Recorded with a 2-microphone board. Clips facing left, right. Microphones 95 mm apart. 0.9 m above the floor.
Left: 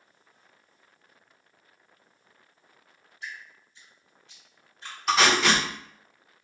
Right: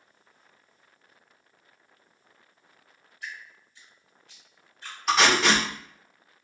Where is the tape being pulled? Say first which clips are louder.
Even; centre (ahead or behind), 1.2 m.